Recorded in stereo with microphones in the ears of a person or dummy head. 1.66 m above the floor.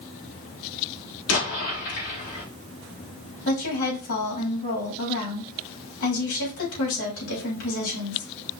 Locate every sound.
1.3 s an explosion: 70° left (ahead or behind), 4 m
3.5 s a woman speaking: 70° left (ahead or behind), 4.5 m